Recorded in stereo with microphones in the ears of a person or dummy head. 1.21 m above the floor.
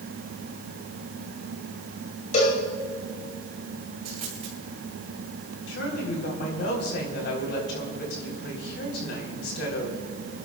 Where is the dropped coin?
35° right (ahead or behind), 3 m.